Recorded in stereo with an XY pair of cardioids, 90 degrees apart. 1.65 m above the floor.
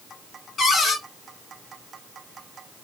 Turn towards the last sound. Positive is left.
turn(degrees=65)